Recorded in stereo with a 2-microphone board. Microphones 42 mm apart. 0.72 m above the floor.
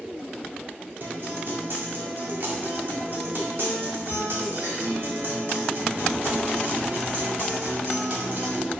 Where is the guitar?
55° right (ahead or behind), 1.7 m.